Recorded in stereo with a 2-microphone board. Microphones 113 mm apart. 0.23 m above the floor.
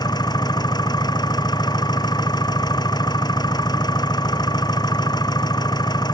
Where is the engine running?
40° left (ahead or behind).